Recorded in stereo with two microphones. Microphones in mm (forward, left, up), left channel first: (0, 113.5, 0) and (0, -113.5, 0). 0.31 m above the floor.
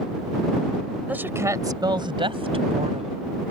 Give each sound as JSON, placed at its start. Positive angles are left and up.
{"t": 1.1, "sound": "a woman speaking", "side_deg": -5}